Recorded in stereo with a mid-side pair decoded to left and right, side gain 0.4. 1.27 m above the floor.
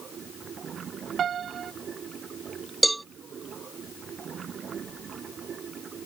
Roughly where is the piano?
Ahead right.